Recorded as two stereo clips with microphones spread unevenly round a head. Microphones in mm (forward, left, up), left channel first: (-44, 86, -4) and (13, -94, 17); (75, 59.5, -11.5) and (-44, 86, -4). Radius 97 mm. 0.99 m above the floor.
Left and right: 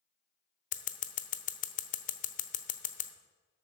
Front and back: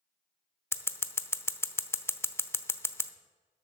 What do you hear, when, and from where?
0.7 s scissors: 55° left, 0.9 m